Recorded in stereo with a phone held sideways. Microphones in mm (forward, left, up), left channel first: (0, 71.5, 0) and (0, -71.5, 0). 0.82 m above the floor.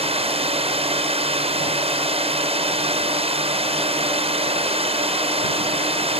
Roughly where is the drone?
Right.